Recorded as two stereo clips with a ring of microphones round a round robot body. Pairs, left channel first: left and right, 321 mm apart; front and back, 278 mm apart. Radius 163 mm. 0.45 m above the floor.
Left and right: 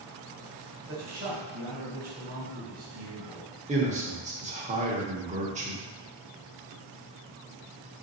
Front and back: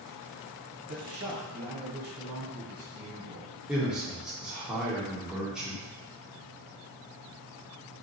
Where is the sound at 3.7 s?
100° right, 0.8 m.